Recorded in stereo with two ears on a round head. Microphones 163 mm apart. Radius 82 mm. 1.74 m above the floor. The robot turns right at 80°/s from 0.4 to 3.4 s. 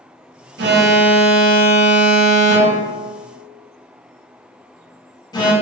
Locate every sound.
0.6 s an alarm: 60° right (ahead or behind), 0.7 m; by 5.5 s 25° left (ahead or behind), 0.7 m